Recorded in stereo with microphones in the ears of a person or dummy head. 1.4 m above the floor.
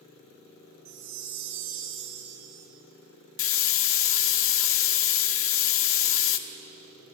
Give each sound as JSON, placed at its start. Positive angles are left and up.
{"t": 0.8, "sound": "a chime", "side_deg": -85, "distance_m": 4.0}
{"t": 3.4, "sound": "a hiss", "side_deg": 65, "distance_m": 0.7}